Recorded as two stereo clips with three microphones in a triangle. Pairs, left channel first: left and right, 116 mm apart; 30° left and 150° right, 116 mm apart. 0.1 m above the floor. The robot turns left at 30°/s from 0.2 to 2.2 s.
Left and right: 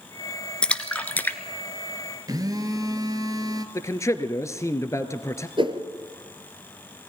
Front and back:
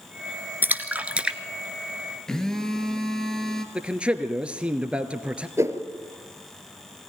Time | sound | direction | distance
0.6 | a splash | 160° left | 1.1 m
2.3 | a phone buzzing | 55° right | 1.9 m
3.8 | a man speaking | 135° left | 1.8 m
5.6 | a whoosh | 95° right | 2 m